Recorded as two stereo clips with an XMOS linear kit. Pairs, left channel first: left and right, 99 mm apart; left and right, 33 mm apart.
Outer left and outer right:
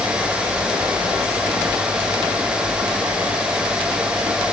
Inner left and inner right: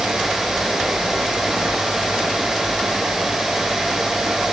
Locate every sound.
Only background noise.